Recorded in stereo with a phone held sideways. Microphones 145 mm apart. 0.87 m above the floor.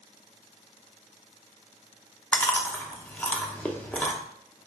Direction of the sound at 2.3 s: 10° left (ahead or behind).